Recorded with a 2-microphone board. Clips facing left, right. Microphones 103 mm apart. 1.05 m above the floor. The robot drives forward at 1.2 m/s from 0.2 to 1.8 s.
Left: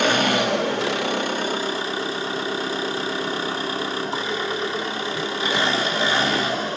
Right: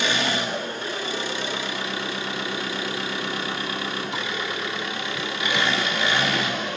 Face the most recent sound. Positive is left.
turn(degrees=35)  # may be behind; listen again after turning